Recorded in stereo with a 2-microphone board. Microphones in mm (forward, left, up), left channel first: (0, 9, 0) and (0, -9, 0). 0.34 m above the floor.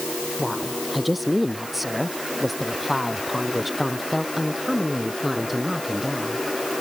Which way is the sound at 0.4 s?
5° right (ahead or behind).